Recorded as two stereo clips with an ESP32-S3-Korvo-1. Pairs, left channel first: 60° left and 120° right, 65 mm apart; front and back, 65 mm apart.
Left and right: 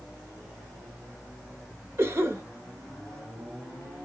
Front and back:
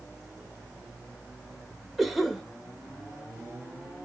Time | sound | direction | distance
2.0 | a cough | 90° right | 1.1 m